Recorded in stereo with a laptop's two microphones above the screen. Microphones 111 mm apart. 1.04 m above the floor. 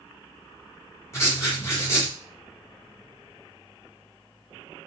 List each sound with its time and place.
1.1 s writing: 25° left (ahead or behind), 1.3 m